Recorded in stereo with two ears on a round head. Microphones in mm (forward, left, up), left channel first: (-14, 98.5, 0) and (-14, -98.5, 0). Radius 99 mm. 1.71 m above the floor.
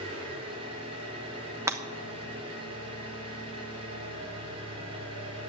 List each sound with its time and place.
0.0 s an engine running: 25° right (ahead or behind), 4 m
1.7 s breaking glass: 15° right (ahead or behind), 1.0 m